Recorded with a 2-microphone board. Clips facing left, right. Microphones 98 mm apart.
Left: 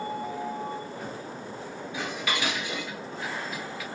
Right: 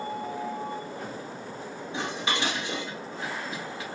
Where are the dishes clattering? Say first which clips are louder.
Right 1 dB; 30° right (ahead or behind), 1.5 m.